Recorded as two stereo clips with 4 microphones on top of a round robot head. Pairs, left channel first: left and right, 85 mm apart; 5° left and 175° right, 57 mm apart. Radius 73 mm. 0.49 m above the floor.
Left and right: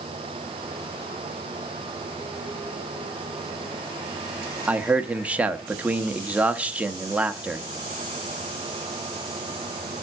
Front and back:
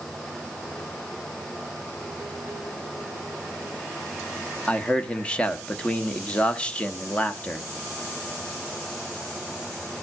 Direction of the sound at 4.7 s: 40° right.